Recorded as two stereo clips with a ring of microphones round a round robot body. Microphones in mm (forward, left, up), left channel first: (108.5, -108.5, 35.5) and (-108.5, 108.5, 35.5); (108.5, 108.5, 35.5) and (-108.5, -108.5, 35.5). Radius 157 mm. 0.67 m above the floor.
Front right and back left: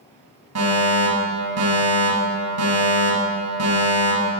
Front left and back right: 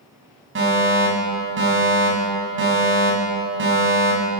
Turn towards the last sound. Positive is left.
turn(degrees=175)